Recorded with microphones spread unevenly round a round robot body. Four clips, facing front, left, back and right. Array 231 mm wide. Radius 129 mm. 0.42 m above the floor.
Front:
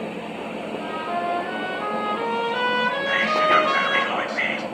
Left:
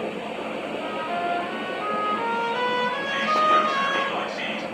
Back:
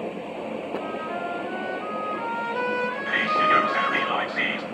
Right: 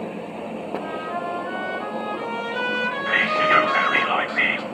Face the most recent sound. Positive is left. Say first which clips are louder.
# right 1 dB, front 1 dB
turn(degrees=-85)